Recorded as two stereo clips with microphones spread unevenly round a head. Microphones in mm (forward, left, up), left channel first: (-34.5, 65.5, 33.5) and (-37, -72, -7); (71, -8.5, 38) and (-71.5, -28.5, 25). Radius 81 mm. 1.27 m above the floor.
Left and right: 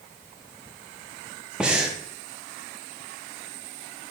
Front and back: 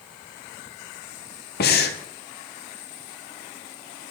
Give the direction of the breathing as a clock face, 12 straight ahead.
12 o'clock.